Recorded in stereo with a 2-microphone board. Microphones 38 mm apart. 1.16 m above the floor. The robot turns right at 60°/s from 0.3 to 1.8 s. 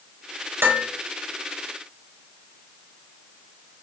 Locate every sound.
0.6 s dishes clattering: 70° right (ahead or behind), 4 m; by 0.9 s 85° right, 4 m